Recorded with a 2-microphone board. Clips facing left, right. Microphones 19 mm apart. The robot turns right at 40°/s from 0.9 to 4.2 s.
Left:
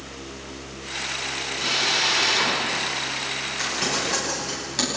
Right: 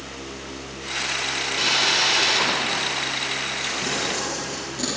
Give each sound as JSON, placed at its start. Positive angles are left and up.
{"t": 1.6, "sound": "a drill", "azimuth_deg": -40, "distance_m": 5.0}
{"t": 3.6, "sound": "crumpling", "side_deg": 80, "distance_m": 10.0}